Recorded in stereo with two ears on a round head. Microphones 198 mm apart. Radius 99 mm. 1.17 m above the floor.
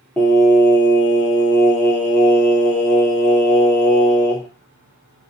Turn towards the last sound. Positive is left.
turn(degrees=10)  # may be behind; listen again after turning